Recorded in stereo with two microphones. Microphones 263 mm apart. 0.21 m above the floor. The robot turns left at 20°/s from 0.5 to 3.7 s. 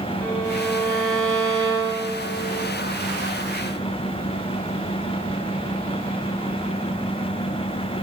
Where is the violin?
165° right, 1.5 m; by 2.7 s 150° left, 1.5 m.